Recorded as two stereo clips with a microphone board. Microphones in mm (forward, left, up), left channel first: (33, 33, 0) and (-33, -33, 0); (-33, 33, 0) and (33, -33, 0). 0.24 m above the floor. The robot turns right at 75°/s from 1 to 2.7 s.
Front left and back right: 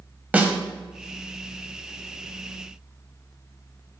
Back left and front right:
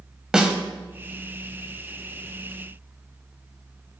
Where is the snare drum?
110° right, 0.9 m.